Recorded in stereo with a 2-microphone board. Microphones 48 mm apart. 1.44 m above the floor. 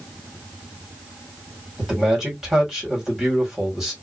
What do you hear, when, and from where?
1.8 s a man speaking: 10° right (ahead or behind), 2 m